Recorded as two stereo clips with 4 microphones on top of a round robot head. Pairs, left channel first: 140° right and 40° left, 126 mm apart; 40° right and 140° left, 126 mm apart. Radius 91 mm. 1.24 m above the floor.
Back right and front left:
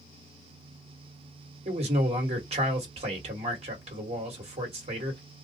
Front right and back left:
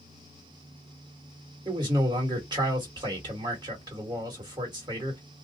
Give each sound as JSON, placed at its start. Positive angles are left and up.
{"t": 1.6, "sound": "a man speaking", "azimuth_deg": 80, "distance_m": 2.0}